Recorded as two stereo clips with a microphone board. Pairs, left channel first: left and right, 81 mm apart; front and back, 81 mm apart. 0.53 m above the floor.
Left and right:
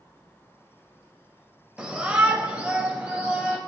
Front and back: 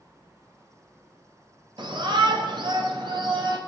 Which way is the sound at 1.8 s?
165° right.